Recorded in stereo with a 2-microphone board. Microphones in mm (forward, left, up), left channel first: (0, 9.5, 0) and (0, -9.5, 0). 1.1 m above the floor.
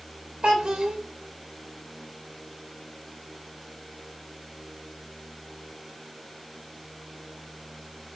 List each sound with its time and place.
0.4 s a child speaking: 70° right (ahead or behind), 2.5 m